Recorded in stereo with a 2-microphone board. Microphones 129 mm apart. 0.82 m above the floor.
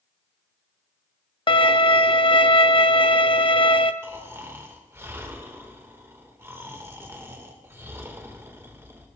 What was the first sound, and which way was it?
A violin, 40° left (ahead or behind).